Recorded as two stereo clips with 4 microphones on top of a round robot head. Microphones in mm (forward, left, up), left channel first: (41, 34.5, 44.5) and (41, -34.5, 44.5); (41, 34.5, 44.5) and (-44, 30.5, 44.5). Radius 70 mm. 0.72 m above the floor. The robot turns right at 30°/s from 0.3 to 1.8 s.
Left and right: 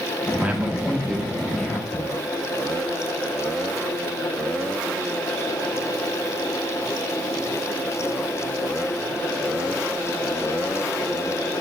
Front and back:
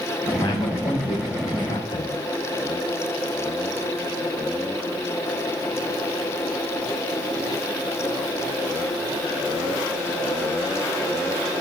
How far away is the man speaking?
About 1.2 m.